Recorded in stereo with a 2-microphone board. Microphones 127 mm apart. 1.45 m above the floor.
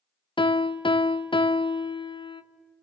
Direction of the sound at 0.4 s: 40° left (ahead or behind).